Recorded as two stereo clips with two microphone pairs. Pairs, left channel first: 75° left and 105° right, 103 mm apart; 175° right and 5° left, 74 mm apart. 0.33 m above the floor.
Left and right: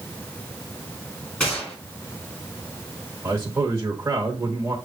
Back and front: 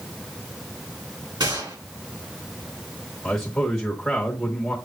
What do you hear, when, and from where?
1.4 s a gunshot: straight ahead, 3.5 m
3.2 s a man speaking: 95° right, 1.1 m